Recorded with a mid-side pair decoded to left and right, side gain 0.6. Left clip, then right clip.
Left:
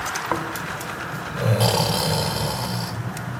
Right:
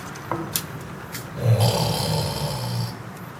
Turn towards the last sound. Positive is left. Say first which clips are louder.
# left 3 dB
turn(degrees=15)